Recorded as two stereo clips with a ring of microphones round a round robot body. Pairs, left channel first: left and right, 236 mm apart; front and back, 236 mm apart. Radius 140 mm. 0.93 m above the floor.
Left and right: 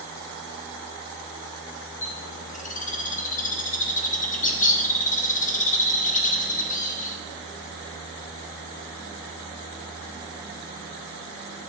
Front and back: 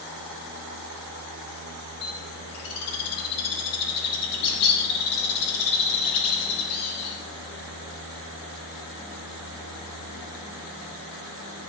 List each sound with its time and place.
2.0 s a bird: 30° left, 0.8 m